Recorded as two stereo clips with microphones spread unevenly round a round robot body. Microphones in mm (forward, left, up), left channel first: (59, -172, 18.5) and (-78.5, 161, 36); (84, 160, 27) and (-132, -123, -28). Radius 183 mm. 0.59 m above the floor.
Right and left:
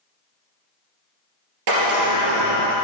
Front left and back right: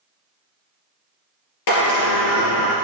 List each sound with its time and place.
1.7 s a sliding door: 80° left, 3 m